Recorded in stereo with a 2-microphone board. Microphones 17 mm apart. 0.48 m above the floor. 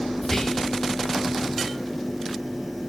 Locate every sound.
0.2 s whispering: 25° left (ahead or behind), 3.5 m